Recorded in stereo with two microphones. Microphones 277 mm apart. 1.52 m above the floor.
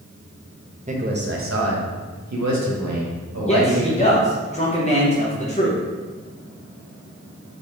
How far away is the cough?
I don't hear a cough.